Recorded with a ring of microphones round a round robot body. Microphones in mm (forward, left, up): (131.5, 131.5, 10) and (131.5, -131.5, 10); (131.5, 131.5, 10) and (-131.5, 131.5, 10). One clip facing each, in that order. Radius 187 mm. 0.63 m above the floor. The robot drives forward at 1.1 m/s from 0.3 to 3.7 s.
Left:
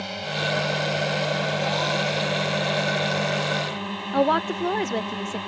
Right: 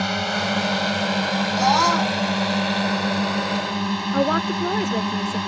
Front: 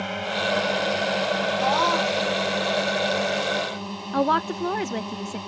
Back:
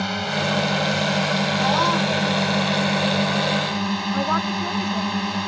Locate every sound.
0.0 s a drone: 130° right; by 5.5 s 140° right
1.6 s a scream: 110° right; by 2.2 s 115° right
4.1 s a woman speaking: 5° right